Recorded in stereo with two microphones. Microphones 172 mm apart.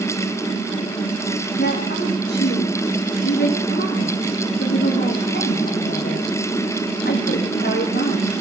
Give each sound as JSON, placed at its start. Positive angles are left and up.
{"t": 1.6, "sound": "a woman speaking", "side_deg": 80, "distance_m": 8.0}